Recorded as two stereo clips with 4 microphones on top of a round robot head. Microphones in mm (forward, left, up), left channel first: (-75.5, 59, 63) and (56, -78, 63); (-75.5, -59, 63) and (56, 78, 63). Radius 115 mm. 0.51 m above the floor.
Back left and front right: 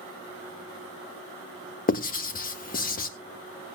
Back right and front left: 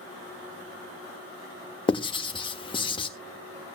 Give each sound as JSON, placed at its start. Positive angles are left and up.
{"t": 1.9, "sound": "writing", "azimuth_deg": 165, "distance_m": 1.5}